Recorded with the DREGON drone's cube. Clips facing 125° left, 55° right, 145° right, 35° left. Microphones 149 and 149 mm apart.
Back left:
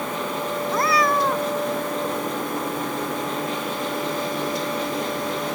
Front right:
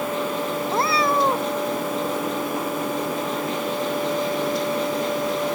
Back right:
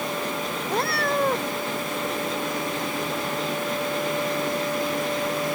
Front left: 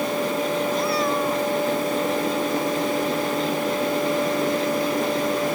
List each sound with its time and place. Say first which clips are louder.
0.7 s a cat meowing: back left 1 dB, front left 3 dB; 120° right